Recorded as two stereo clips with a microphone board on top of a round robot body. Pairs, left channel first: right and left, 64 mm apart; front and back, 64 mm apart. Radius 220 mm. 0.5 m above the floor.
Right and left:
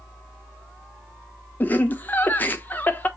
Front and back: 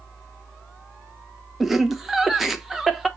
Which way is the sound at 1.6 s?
95° right.